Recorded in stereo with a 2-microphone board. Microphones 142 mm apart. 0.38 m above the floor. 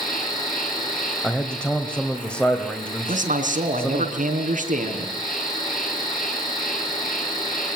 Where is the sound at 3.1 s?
65° right (ahead or behind), 3.5 m.